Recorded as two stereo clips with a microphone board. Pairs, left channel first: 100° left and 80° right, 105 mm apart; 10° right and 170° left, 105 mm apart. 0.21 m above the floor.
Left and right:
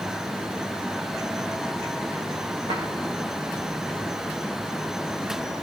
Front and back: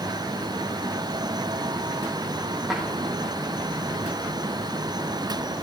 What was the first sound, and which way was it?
A drawer, 105° right.